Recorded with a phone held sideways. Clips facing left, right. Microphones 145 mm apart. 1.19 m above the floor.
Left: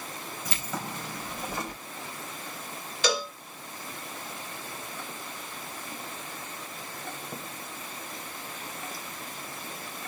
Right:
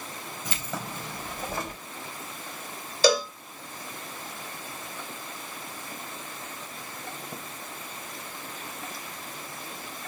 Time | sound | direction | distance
0.5 | keys jangling | 20° right (ahead or behind) | 3.5 m
3.0 | a cowbell | 35° right (ahead or behind) | 1.7 m